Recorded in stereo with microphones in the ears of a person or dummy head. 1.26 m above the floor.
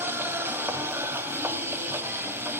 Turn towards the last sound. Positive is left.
turn(degrees=-15)  # may be behind; listen again after turning